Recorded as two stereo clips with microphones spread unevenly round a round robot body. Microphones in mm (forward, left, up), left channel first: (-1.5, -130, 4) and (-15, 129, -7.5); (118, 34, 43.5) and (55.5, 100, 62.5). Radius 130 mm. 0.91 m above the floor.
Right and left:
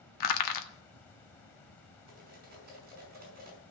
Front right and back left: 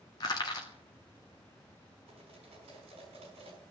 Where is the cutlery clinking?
150° left, 5 m.